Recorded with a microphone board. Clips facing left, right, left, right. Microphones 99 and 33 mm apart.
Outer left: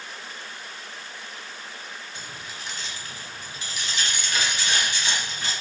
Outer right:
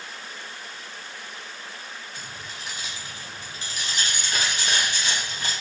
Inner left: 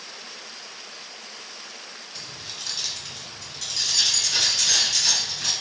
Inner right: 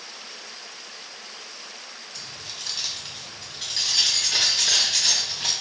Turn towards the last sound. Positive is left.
turn(degrees=-55)  # may be behind; listen again after turning